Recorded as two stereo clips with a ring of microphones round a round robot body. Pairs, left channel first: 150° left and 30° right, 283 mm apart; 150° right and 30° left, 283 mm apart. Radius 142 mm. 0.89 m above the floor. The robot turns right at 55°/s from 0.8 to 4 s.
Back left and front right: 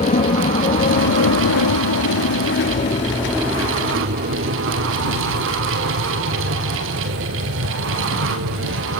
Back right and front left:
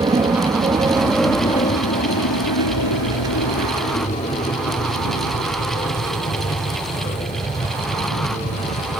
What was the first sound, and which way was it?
An aircraft, 100° left.